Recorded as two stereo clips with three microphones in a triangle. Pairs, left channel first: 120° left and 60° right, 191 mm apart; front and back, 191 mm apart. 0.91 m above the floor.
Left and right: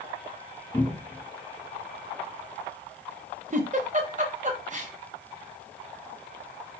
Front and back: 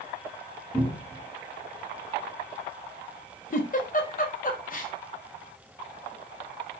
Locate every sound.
0.7 s a cupboard door: 45° left, 1.1 m
3.5 s a giggle: 25° right, 0.5 m